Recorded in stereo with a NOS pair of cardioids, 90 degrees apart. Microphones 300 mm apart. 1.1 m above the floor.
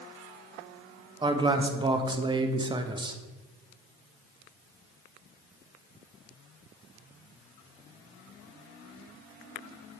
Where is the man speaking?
15° right, 0.7 m.